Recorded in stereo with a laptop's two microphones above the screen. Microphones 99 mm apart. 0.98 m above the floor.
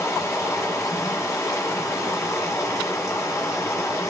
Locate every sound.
0.0 s running water: 35° left (ahead or behind), 1.0 m